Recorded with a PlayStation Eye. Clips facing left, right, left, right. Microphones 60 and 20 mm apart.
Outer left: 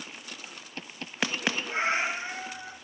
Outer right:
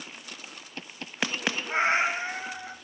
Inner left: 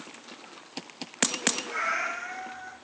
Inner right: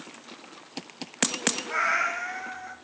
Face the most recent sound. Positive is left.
turn(degrees=-35)  # may be behind; listen again after turning